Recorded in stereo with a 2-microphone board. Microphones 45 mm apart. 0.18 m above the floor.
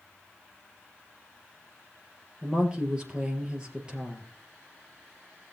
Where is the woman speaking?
20° right (ahead or behind), 3.5 m.